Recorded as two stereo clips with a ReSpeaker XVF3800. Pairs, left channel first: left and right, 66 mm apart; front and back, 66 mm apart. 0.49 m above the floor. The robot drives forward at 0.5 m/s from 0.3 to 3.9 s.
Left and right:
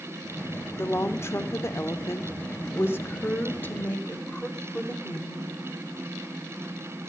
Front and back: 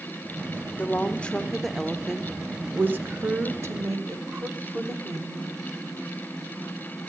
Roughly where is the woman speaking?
Ahead left.